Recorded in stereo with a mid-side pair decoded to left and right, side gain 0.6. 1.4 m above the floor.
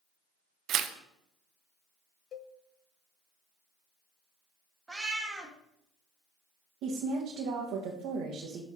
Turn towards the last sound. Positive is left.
turn(degrees=-65)